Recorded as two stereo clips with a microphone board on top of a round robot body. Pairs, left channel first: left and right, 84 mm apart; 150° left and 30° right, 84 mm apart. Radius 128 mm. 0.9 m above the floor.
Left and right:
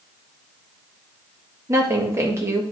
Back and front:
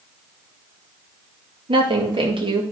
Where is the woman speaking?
35° right, 2 m.